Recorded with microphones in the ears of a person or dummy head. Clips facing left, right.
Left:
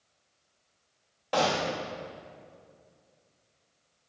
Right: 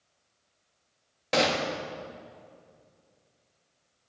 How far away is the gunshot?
About 1.4 m.